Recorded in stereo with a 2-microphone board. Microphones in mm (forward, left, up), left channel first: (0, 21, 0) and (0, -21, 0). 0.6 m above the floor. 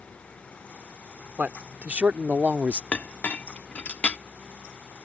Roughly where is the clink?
Left.